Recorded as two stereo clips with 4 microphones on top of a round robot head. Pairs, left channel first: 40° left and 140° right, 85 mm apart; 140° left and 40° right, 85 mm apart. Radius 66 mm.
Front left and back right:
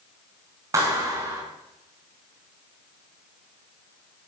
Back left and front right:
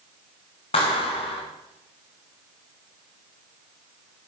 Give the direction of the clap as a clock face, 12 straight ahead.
7 o'clock.